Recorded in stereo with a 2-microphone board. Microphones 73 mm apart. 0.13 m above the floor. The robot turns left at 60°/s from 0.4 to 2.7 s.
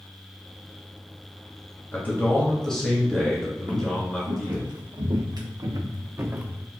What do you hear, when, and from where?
1.9 s a man speaking: 60° left, 1.2 m; by 4.7 s 10° left, 1.2 m
3.7 s footsteps: 70° right (ahead or behind), 1.7 m; by 6.7 s 10° right (ahead or behind), 0.7 m